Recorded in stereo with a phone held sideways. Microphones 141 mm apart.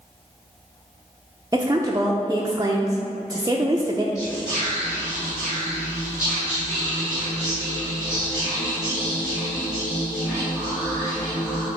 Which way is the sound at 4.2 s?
5° right (ahead or behind).